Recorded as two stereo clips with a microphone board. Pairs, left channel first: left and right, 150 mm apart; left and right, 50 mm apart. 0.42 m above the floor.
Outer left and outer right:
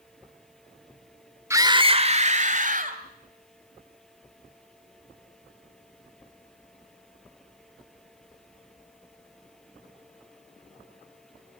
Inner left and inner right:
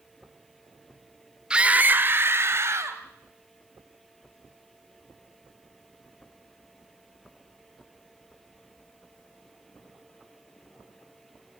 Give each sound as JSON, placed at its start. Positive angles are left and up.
{"t": 1.5, "sound": "a scream", "side_deg": -15, "distance_m": 1.3}